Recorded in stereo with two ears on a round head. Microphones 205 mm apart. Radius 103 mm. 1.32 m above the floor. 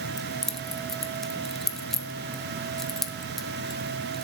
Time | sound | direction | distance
0.2 | keys jangling | centre (ahead or behind) | 0.6 m